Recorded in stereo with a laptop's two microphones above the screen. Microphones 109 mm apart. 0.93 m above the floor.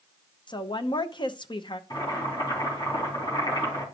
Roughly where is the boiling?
Left.